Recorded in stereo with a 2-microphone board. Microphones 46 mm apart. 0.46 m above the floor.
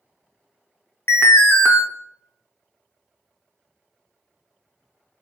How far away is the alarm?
About 0.6 m.